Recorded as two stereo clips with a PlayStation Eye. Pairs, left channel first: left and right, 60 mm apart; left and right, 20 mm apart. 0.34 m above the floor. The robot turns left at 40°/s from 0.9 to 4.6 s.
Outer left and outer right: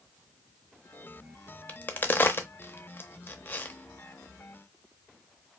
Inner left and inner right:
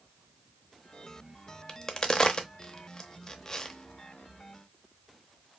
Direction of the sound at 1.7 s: 25° left (ahead or behind).